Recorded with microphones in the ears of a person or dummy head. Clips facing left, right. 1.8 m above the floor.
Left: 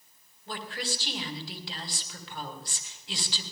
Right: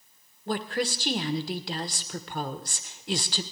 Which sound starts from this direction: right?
A woman speaking, at 0.5 s.